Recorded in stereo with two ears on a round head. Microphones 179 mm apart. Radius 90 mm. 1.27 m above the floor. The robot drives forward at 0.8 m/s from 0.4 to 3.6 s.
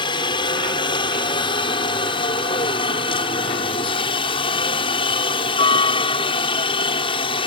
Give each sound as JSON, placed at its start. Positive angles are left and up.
{"t": 0.0, "sound": "a helicopter", "side_deg": 25}